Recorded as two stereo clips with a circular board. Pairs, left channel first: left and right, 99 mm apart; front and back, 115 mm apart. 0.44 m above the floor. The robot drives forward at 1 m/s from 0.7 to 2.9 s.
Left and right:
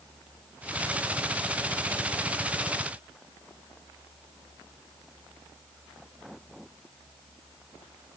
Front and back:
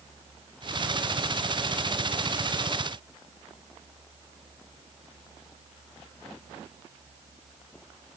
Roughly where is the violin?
No violin in this recording.